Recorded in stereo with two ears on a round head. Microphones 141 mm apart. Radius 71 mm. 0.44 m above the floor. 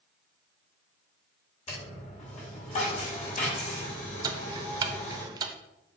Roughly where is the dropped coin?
Left.